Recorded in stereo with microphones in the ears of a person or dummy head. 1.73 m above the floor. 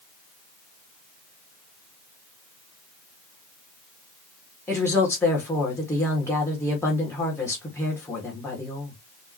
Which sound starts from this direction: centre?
A woman speaking, at 4.7 s.